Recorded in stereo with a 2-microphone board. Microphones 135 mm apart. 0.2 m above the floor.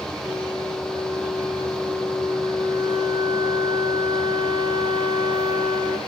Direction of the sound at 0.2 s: 35° right (ahead or behind).